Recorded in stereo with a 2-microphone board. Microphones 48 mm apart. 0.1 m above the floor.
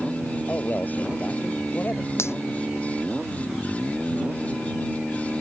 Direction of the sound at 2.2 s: 65° left (ahead or behind).